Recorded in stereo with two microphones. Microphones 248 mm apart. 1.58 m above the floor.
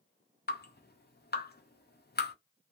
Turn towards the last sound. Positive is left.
turn(degrees=40)  # may be behind; listen again after turning